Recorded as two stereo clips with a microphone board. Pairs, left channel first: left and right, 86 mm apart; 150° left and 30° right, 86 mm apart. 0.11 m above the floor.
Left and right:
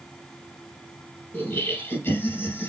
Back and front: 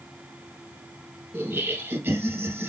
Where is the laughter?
35° left, 3 m.